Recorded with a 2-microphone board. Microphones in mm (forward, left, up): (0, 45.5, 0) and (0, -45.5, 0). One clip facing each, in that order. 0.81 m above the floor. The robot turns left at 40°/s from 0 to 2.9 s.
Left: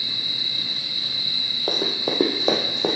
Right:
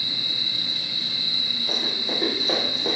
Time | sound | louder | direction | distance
1.7 | running footsteps | left 6 dB | 60° left (ahead or behind) | 1.8 m